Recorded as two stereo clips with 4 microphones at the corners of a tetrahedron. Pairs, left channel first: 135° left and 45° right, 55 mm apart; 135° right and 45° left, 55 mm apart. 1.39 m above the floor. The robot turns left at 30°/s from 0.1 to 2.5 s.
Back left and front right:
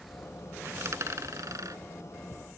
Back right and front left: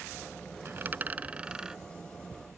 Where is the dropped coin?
5° right; by 1.8 s 40° right.